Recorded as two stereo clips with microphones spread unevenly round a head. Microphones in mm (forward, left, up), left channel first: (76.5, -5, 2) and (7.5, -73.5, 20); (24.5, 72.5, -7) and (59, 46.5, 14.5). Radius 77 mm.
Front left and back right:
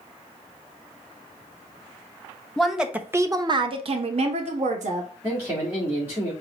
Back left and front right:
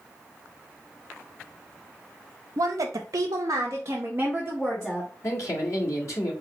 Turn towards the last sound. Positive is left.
turn(degrees=145)